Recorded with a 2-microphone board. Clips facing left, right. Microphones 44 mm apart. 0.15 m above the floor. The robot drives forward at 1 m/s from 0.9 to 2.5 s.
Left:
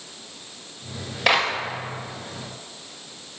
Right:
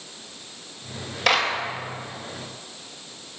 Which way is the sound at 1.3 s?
10° left (ahead or behind).